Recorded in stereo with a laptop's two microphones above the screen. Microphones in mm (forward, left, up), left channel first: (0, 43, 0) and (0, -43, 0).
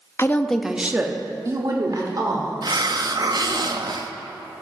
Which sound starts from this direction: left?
A woman speaking, at 0.2 s.